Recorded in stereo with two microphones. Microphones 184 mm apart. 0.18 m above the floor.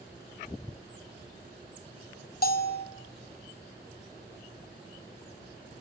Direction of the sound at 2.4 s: 55° left (ahead or behind).